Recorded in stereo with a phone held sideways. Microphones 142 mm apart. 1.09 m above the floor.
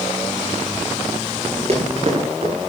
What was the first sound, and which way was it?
Running footsteps, 50° right (ahead or behind).